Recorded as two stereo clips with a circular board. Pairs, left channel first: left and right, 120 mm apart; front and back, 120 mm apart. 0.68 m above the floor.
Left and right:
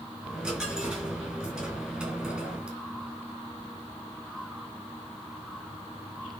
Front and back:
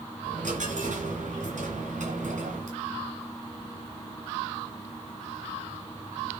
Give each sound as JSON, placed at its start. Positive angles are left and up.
{"t": 0.2, "sound": "a dropped coin", "azimuth_deg": -175, "distance_m": 3.5}